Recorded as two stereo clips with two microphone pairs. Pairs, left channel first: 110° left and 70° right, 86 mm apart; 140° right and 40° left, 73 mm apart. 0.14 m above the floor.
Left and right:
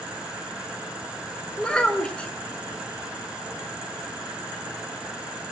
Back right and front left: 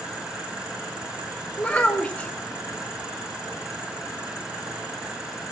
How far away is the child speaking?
About 0.9 m.